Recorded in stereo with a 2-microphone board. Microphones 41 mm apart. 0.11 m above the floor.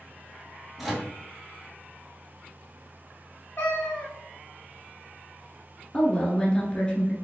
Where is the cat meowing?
50° left (ahead or behind), 1.9 m.